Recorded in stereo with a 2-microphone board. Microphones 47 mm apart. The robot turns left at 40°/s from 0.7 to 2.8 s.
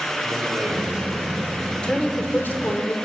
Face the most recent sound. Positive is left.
turn(degrees=120)